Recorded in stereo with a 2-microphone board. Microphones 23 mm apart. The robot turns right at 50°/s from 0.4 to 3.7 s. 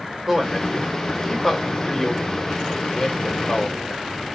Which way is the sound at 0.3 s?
15° right (ahead or behind).